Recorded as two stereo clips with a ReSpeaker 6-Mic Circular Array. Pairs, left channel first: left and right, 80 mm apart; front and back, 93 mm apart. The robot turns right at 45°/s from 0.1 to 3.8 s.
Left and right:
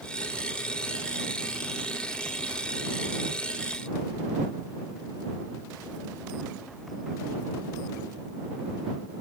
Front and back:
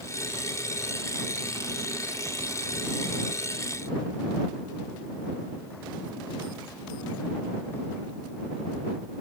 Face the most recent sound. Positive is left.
No sound to turn to.